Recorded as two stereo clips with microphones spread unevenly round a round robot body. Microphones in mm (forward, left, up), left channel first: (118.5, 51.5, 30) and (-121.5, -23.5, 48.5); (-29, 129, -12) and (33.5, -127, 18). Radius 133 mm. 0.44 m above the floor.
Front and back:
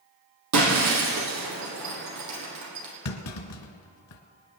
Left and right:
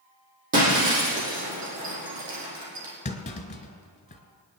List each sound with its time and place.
0.5 s breaking glass: 135° right, 3.5 m
3.0 s a clunk: 35° left, 1.4 m